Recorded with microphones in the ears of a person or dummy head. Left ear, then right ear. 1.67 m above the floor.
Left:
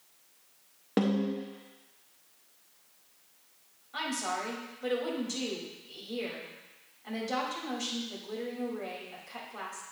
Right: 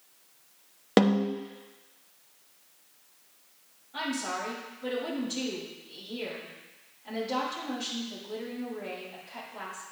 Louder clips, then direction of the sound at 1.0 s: Right 6 dB; 35° right (ahead or behind).